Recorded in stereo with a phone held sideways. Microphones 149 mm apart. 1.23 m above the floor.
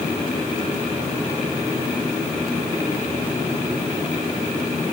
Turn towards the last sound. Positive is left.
No sound to turn to.